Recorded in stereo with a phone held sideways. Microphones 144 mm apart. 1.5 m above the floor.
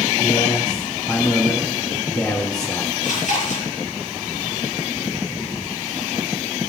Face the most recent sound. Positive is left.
turn(degrees=65)  # may be behind; listen again after turning